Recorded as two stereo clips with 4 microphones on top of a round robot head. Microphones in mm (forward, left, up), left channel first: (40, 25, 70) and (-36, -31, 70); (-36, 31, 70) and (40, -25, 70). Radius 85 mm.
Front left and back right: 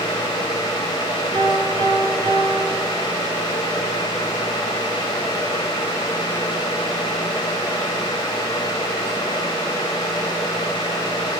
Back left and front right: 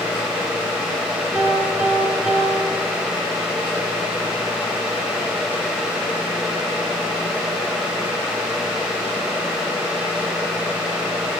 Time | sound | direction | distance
1.3 | a piano | 110° right | 7.5 m